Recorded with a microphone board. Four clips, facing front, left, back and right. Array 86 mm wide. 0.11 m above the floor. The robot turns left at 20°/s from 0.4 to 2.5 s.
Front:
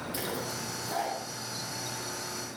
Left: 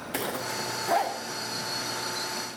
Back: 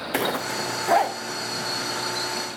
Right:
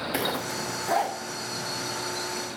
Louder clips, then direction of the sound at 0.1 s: Even, back 13 dB; 170° right.